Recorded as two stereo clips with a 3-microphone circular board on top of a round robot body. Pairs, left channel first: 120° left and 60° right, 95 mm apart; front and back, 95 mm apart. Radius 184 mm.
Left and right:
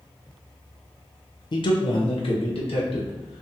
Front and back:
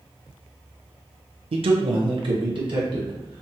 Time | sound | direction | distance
1.5 | a man speaking | 160° left | 0.7 m